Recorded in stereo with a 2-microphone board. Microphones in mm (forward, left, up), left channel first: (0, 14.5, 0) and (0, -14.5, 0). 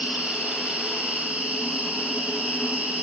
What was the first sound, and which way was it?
An insect, 45° right (ahead or behind).